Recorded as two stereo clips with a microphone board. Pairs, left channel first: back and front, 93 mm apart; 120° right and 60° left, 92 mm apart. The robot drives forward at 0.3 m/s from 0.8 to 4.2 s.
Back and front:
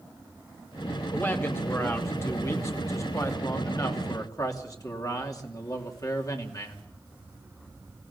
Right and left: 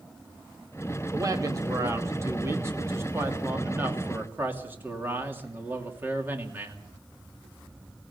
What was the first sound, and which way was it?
A man speaking, 110° left.